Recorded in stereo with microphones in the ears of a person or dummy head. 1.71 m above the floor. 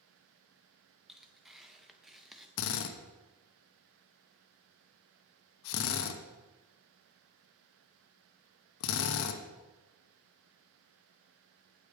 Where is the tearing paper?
Centre (ahead or behind), 0.8 m.